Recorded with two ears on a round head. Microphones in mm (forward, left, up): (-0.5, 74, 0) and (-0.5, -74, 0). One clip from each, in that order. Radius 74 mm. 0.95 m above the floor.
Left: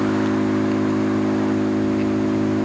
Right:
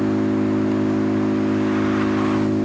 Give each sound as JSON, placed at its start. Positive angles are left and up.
{"t": 0.0, "sound": "an engine running", "side_deg": 20}